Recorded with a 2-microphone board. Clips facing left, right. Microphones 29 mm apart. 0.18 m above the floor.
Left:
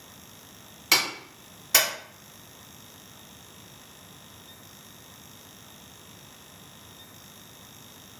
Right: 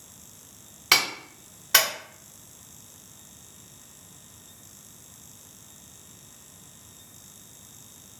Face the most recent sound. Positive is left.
turn(degrees=-20)  # may be behind; listen again after turning